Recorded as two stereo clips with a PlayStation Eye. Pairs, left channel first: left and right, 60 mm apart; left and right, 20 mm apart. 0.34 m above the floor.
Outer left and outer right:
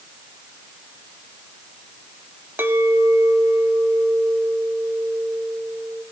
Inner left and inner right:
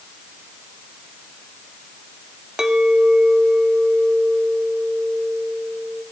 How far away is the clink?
About 1.0 m.